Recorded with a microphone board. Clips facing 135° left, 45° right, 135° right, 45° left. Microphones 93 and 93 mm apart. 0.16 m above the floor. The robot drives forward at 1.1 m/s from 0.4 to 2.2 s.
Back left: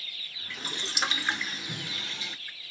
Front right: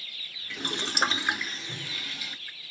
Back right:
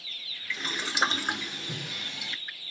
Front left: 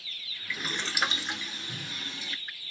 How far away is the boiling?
About 0.8 m.